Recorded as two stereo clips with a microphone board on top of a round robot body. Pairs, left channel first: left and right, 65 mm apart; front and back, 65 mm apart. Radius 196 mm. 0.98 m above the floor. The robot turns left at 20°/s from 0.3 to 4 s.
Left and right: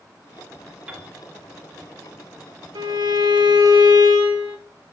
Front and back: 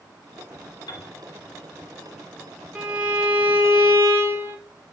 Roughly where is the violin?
Right.